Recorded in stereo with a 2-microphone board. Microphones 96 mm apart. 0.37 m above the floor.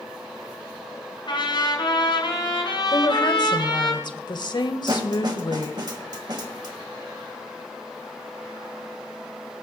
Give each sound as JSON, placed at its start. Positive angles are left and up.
{"t": 1.3, "sound": "a trumpet", "side_deg": 55, "distance_m": 5.5}
{"t": 2.9, "sound": "a woman speaking", "side_deg": 50, "distance_m": 1.3}
{"t": 4.9, "sound": "a snare drum", "side_deg": -50, "distance_m": 1.5}